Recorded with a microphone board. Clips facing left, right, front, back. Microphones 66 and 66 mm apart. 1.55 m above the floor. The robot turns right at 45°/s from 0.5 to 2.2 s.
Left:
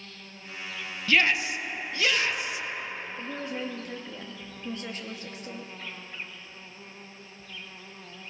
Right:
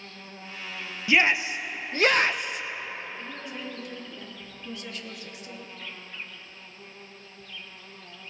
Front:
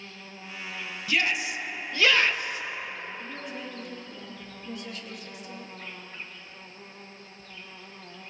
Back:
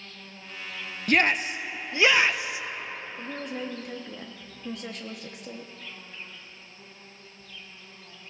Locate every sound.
0.0 s an insect: 60° right, 1.1 m; by 8.3 s 15° left, 1.1 m
1.1 s a shout: 155° right, 0.7 m; by 2.6 s 105° right, 0.7 m
3.2 s a woman speaking: 145° left, 1.2 m